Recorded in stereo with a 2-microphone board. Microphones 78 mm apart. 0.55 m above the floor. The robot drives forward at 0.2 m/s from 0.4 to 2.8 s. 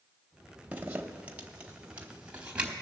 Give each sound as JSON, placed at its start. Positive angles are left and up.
{"t": 0.7, "sound": "a zipper", "side_deg": -20, "distance_m": 0.8}